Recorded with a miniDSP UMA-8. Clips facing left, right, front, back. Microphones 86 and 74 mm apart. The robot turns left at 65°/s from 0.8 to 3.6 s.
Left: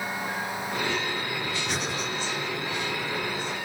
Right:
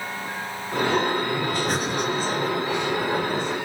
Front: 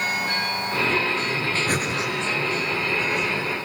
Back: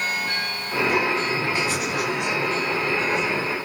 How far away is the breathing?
About 5 m.